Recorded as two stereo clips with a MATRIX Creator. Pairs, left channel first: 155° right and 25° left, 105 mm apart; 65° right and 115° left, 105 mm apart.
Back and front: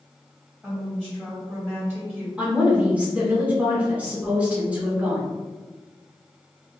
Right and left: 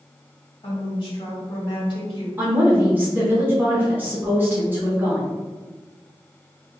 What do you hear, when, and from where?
0.6 s a woman speaking: 50° right, 1.7 m
2.4 s a woman speaking: 75° left, 0.8 m